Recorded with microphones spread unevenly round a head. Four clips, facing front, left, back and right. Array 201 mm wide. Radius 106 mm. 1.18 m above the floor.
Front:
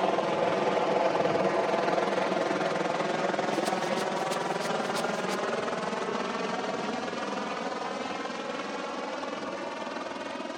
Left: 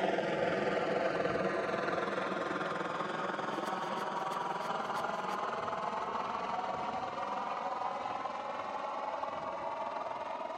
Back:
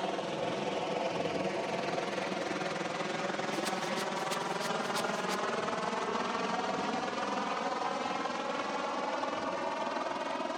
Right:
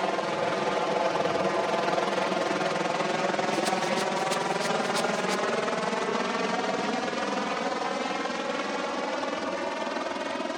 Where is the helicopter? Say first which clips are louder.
Right 4 dB, front 8 dB; 15° right; by 10.6 s 105° right.